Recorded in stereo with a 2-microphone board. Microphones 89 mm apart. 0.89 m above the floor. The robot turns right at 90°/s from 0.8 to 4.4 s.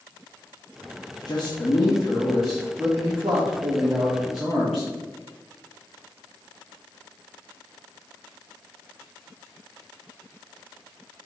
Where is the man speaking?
70° left, 0.8 m; by 4.9 s 5° right, 0.8 m.